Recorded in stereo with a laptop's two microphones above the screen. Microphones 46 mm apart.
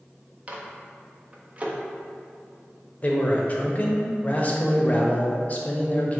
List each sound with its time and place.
0.5 s a microwave: 30° right (ahead or behind), 0.6 m
3.0 s a man speaking: 35° left (ahead or behind), 0.7 m